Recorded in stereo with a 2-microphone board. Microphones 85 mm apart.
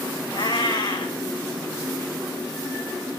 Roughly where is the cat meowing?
Left.